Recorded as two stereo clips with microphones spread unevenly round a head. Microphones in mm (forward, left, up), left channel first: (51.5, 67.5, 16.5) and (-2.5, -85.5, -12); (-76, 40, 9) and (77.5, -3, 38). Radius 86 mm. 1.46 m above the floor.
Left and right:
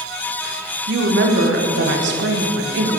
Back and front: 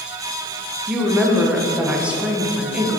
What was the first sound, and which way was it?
A woman speaking, 100° right.